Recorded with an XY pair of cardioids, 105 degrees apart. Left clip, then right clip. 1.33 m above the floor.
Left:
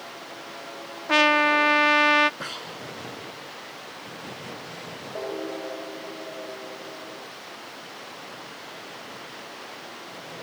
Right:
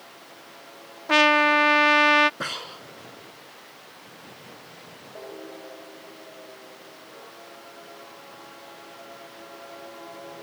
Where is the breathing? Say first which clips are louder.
Right 2 dB; 25° right.